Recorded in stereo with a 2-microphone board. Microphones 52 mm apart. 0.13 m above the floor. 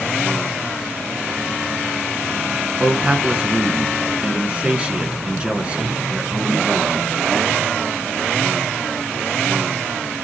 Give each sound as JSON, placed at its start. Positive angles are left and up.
{"t": 2.8, "sound": "a man speaking", "side_deg": -25, "distance_m": 1.3}